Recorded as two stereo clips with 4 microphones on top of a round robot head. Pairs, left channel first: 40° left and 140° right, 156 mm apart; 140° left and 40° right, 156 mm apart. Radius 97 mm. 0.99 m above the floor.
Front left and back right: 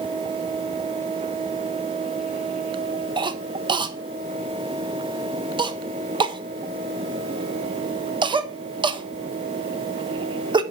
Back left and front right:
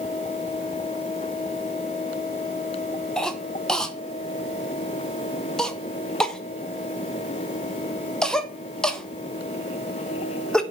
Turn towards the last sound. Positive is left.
turn(degrees=-135)